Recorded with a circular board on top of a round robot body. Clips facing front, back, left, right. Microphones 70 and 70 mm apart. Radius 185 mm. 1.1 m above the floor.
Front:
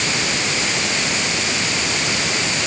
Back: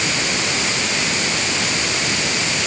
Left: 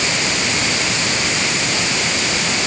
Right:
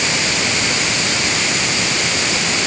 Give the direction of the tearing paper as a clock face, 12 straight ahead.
I don't hear tearing paper.